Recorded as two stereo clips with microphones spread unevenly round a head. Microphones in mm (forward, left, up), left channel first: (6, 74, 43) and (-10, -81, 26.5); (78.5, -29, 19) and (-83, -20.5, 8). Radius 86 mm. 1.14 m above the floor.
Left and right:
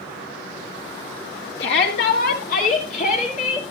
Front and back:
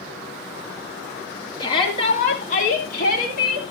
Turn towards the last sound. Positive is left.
turn(degrees=35)